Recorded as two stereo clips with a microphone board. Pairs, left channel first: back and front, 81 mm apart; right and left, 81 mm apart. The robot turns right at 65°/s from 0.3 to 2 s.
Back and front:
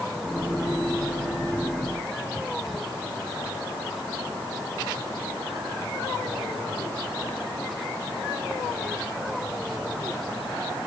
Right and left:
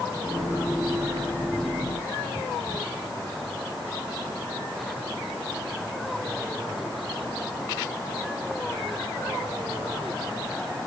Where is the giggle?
I don't hear a giggle.